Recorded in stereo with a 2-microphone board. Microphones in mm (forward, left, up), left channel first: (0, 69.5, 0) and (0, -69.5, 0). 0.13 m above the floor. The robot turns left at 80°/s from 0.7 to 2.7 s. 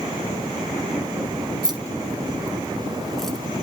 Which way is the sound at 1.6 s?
35° right (ahead or behind).